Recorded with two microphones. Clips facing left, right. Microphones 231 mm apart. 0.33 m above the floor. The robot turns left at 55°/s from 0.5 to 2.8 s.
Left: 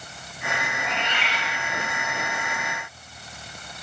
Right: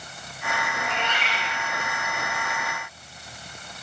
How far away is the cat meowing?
About 4 m.